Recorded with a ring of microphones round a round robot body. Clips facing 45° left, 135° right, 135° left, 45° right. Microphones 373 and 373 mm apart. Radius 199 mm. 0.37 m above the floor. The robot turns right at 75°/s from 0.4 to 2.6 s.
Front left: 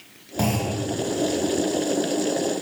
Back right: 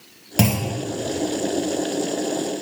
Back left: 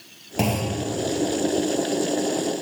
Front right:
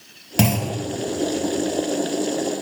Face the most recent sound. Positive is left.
turn(degrees=65)